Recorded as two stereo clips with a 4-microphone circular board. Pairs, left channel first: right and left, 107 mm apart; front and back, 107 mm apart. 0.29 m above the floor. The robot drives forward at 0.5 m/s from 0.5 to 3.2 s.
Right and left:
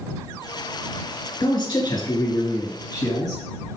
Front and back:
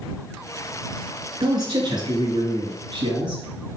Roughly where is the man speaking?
Behind right.